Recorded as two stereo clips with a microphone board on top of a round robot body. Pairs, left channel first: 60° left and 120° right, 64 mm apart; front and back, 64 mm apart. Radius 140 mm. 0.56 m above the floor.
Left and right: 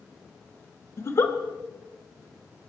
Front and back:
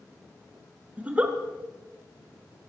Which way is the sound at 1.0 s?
110° left.